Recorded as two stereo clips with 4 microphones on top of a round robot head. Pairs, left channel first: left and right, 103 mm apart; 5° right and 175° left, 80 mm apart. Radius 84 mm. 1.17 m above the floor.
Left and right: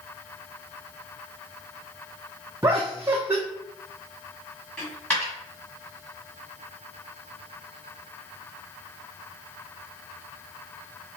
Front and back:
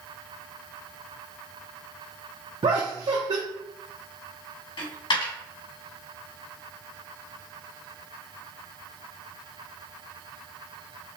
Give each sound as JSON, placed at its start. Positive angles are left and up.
{"t": 2.6, "sound": "laughter", "azimuth_deg": -155, "distance_m": 0.7}
{"t": 4.8, "sound": "a dropped coin", "azimuth_deg": 10, "distance_m": 2.5}